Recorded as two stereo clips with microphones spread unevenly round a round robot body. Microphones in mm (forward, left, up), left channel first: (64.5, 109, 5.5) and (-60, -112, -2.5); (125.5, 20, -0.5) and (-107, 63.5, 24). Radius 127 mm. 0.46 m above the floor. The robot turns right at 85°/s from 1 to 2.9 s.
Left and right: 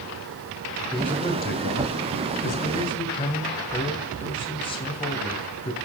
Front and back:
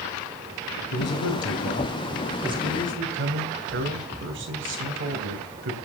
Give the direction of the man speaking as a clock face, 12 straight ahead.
1 o'clock.